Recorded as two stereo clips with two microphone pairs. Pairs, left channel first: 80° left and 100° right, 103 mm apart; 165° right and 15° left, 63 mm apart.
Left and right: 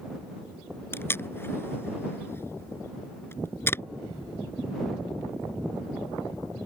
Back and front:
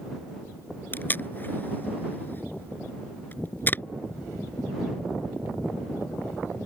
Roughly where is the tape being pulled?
Behind left.